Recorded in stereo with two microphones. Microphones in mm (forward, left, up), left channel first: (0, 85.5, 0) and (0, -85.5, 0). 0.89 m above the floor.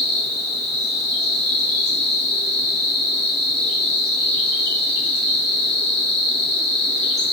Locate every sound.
0.0 s an insect: 80° right, 0.9 m